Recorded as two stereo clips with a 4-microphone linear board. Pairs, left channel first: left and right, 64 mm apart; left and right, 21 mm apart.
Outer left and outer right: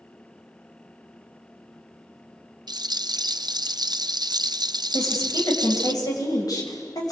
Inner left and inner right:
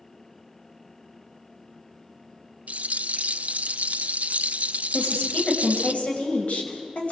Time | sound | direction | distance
2.7 | a rattle | 85° right | 0.8 m
4.9 | a woman speaking | 65° left (ahead or behind) | 6.5 m